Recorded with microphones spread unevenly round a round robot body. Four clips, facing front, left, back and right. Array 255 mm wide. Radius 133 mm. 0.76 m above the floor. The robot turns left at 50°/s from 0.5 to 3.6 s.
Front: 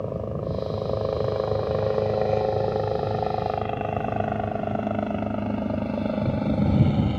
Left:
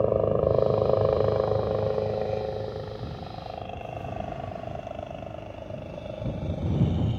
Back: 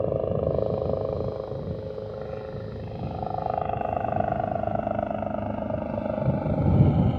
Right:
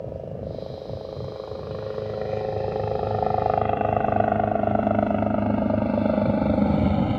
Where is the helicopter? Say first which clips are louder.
Left 11 dB, back 4 dB; 85° left; by 7.2 s 70° right.